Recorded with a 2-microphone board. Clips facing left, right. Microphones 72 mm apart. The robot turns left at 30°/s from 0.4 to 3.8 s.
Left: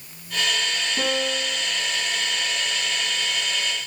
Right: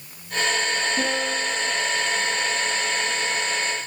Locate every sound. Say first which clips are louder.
1.0 s a piano: right 1 dB; 5° right (ahead or behind), 9 m; by 1.7 s 15° left (ahead or behind), 9 m